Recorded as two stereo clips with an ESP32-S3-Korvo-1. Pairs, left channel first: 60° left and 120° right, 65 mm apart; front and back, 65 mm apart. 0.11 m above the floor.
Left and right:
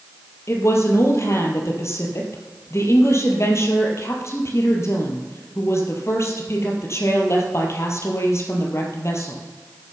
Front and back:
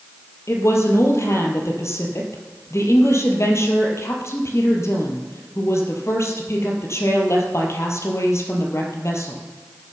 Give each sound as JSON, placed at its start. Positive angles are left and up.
{"t": 0.5, "sound": "a woman speaking", "azimuth_deg": 30, "distance_m": 3.0}